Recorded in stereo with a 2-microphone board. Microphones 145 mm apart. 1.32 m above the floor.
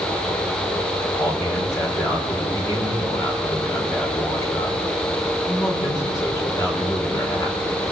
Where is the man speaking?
25° left (ahead or behind), 5.5 m.